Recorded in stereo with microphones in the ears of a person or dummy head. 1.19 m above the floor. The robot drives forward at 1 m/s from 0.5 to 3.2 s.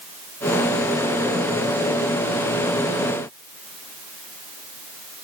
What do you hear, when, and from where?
Only background noise.